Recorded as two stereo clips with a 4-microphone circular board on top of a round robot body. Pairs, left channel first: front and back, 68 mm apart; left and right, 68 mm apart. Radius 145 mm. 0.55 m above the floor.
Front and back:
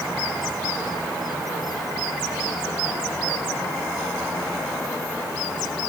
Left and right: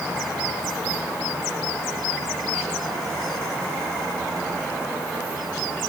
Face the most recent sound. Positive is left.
No sound to turn to.